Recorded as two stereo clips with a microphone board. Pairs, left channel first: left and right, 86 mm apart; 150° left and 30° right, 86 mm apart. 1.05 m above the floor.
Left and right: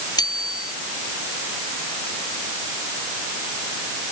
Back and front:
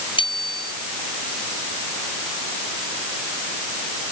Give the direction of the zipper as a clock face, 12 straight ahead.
I don't hear a zipper.